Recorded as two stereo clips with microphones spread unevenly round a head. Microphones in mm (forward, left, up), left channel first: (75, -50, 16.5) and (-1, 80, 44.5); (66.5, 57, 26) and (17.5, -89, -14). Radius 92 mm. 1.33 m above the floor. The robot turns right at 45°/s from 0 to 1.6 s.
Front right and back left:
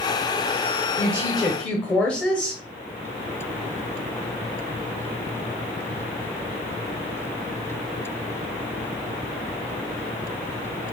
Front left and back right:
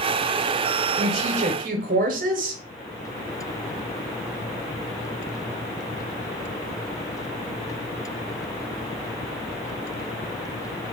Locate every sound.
1.0 s a woman speaking: 170° right, 0.7 m; by 2.6 s 140° right, 0.7 m